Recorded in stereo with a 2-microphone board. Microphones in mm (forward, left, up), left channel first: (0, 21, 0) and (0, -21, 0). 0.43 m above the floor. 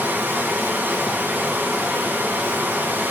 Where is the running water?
65° right (ahead or behind), 4 m.